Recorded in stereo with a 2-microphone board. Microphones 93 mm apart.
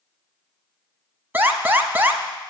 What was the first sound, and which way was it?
An alarm, 20° right (ahead or behind).